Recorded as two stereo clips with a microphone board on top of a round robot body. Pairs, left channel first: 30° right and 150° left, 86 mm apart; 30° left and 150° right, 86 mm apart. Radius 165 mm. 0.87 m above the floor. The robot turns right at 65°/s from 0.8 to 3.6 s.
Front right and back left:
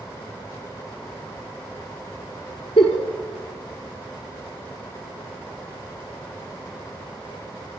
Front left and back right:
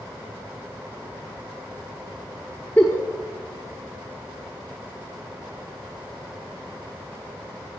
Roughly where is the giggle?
Ahead right.